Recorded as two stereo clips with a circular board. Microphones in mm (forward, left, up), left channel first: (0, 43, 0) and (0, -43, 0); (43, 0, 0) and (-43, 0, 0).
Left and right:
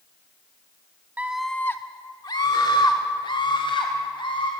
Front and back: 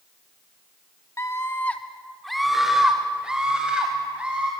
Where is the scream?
30° right, 0.9 m; by 4.5 s 105° left, 4 m.